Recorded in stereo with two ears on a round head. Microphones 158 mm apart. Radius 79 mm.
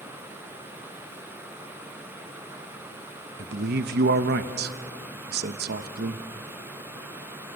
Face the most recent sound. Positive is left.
turn(degrees=-55)  # may be behind; listen again after turning